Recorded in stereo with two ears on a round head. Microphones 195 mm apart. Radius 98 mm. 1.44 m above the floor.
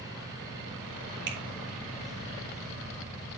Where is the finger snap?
50° right (ahead or behind), 2.5 m.